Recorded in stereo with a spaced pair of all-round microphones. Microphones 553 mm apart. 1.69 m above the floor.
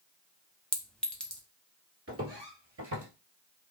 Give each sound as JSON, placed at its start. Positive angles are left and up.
{"t": 0.7, "sound": "a clink", "side_deg": 0, "distance_m": 0.7}
{"t": 2.1, "sound": "footsteps", "side_deg": -25, "distance_m": 1.9}